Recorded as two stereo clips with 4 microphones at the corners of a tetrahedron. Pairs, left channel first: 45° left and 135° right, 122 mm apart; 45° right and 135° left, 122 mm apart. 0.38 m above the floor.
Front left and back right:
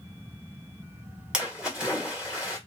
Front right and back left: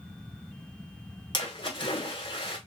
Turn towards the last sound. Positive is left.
turn(degrees=-55)